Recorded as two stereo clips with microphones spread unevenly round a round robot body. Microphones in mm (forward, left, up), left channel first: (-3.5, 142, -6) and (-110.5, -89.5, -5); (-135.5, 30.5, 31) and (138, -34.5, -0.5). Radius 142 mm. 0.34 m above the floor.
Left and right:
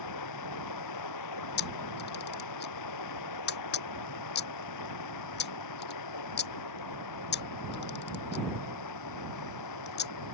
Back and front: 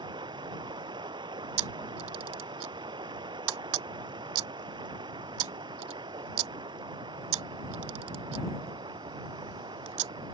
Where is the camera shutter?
10° left.